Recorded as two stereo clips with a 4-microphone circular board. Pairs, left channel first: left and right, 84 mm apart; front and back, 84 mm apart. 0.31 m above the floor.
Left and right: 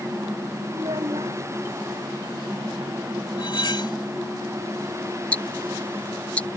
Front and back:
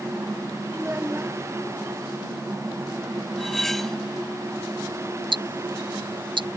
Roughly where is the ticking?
Behind.